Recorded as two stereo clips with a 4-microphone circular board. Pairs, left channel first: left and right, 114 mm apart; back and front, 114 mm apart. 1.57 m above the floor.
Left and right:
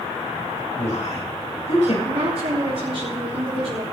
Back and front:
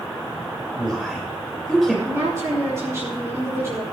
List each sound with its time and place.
0.7 s a man speaking: 90° left, 7.5 m
2.0 s a woman speaking: 65° right, 4.5 m